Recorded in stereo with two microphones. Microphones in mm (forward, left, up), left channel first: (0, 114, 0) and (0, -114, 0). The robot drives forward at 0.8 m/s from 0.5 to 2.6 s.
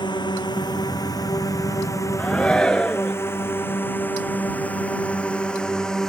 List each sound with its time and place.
0.0 s a drone: 20° left (ahead or behind); by 6.1 s centre (ahead or behind)
2.2 s a shout: 5° left (ahead or behind)